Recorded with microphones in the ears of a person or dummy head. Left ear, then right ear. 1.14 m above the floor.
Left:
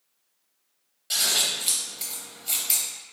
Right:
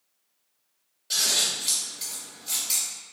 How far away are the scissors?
About 0.6 m.